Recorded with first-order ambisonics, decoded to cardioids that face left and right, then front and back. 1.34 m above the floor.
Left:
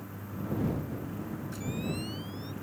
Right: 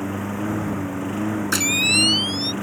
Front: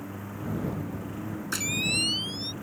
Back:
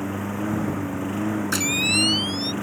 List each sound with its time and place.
0.0 s a lawn mower: 125° right; by 2.6 s 130° right
1.5 s a camera shutter: 110° right